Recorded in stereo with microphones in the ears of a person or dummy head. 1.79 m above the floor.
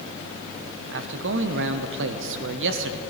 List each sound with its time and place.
0.9 s a man speaking: 70° right (ahead or behind), 0.8 m